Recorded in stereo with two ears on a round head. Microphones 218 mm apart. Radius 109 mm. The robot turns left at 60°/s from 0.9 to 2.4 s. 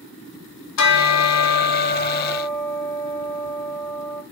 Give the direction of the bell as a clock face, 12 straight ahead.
9 o'clock.